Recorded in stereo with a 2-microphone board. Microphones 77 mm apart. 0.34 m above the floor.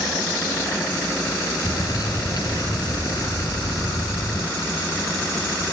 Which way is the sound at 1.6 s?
65° left (ahead or behind).